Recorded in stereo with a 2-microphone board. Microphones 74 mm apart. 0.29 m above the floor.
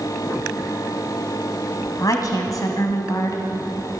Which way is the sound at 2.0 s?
50° left (ahead or behind).